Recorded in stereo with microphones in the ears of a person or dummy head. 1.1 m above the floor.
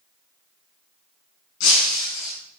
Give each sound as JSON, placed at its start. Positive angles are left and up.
{"t": 1.6, "sound": "breaking glass", "side_deg": 80, "distance_m": 4.5}